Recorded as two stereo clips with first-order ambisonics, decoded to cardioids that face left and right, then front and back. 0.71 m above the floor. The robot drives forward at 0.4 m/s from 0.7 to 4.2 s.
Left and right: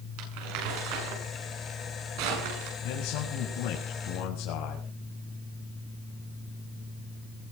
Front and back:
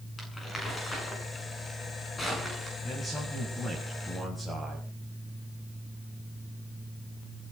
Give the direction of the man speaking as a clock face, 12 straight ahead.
9 o'clock.